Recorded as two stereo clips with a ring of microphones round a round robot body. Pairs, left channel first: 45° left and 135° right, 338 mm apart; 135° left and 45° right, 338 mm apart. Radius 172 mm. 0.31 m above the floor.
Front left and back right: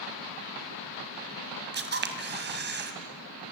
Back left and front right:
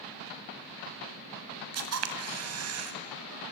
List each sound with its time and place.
1.7 s a camera shutter: 80° right, 2.5 m